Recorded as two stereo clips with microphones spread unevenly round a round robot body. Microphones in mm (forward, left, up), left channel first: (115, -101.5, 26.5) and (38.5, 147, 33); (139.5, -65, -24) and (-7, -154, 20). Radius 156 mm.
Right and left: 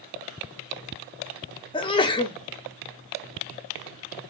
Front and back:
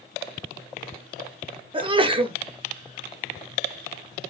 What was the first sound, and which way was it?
A sneeze, 100° right.